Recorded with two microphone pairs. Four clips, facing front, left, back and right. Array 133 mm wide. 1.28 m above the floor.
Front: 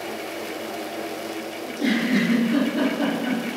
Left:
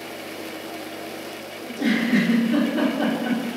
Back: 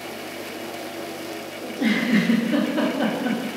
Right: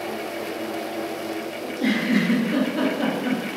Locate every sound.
1.6 s a giggle: 160° left, 0.7 m